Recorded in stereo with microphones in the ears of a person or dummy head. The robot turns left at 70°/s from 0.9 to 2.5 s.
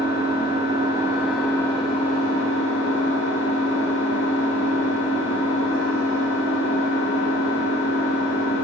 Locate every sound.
0.0 s an engine running: 155° right, 1.8 m; by 8.6 s 95° left, 1.8 m